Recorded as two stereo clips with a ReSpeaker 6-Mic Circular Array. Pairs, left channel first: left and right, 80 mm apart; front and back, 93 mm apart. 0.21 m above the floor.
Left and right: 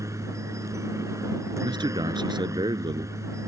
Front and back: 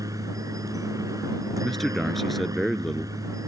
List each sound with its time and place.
0.0 s a helicopter: 135° right
1.6 s a man speaking: 90° right